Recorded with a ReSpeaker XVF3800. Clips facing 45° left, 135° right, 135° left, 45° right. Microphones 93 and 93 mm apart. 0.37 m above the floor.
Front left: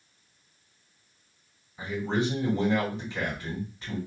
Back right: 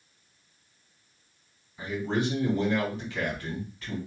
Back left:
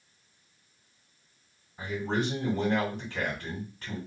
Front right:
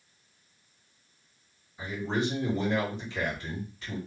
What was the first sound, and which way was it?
A man speaking, 105° left.